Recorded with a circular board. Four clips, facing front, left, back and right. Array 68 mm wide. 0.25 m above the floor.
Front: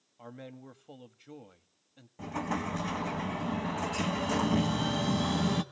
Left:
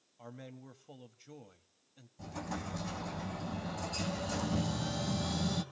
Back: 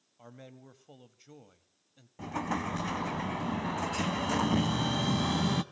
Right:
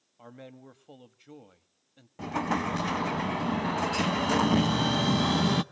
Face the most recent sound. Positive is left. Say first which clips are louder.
# right 12 dB, even
turn(degrees=-95)